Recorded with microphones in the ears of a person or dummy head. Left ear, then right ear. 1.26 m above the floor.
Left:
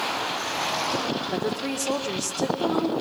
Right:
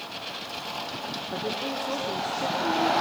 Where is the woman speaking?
75° left (ahead or behind), 3 m.